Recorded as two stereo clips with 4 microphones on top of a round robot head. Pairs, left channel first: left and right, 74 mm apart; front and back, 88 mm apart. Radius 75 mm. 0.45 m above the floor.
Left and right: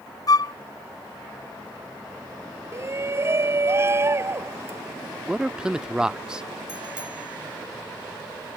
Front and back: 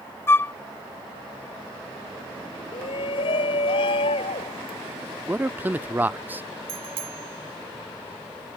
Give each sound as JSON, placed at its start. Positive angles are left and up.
{"t": 0.3, "sound": "a flute", "azimuth_deg": 65}
{"t": 2.7, "sound": "a shout", "azimuth_deg": -35}
{"t": 5.3, "sound": "a man speaking", "azimuth_deg": -150}
{"t": 6.7, "sound": "a bicycle bell", "azimuth_deg": -170}